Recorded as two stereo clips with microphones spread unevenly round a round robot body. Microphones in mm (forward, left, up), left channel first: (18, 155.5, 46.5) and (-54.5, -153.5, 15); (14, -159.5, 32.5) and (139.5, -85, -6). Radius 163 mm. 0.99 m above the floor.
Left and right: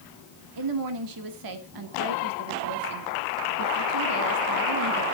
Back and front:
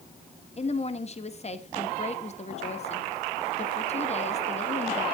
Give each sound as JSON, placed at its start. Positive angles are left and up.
{"t": 0.6, "sound": "a woman speaking", "azimuth_deg": -100, "distance_m": 1.7}